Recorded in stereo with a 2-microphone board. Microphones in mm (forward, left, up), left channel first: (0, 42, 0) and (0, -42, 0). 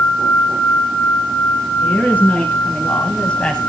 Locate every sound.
1.8 s a woman speaking: 20° left (ahead or behind), 3.5 m; by 3.6 s 10° left (ahead or behind), 1.7 m